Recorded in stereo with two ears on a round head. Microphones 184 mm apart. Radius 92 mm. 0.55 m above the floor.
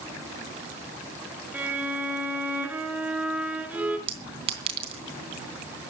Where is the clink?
30° right (ahead or behind), 3 m.